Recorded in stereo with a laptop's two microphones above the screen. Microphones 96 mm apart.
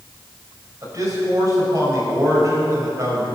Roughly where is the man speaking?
Right.